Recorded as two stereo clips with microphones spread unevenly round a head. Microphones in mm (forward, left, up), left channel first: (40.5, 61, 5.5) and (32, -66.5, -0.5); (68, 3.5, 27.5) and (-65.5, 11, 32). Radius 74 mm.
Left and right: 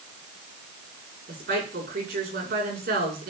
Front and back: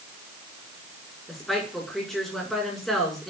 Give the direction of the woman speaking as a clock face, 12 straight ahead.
3 o'clock.